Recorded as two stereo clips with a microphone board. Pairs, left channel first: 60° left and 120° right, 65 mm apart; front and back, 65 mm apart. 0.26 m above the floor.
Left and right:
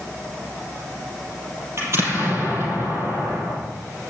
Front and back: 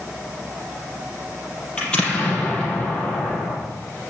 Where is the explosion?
75° right, 5 m.